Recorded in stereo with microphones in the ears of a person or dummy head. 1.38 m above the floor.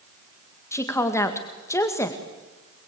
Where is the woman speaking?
20° left (ahead or behind), 2.0 m.